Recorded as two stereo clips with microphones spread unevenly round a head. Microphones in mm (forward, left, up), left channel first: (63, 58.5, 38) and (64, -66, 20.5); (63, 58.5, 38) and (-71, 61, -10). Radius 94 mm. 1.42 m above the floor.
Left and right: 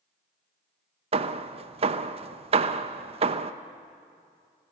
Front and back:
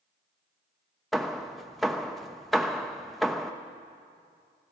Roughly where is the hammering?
Ahead right.